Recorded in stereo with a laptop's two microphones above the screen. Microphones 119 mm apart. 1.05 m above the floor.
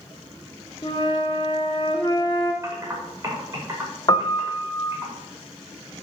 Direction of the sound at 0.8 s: 45° left (ahead or behind).